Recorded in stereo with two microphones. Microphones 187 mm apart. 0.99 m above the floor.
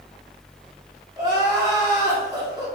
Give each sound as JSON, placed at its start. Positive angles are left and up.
{"t": 1.2, "sound": "crying", "side_deg": -20, "distance_m": 1.1}